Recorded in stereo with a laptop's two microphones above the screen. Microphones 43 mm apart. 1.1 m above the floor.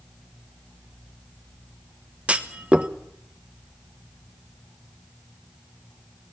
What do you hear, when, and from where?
2.3 s a clunk: 30° right (ahead or behind), 1.2 m